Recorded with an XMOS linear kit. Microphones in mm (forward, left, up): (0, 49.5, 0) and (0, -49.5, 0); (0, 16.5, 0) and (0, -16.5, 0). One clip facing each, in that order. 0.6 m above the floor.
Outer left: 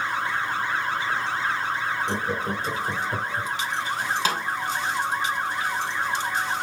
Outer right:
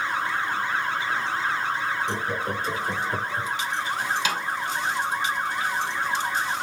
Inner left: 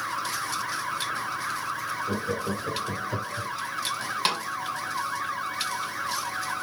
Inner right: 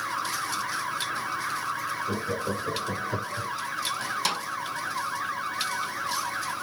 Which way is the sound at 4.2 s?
40° left (ahead or behind).